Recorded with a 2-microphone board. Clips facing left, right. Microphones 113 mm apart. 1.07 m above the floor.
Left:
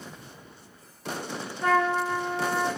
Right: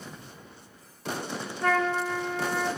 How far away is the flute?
About 0.9 m.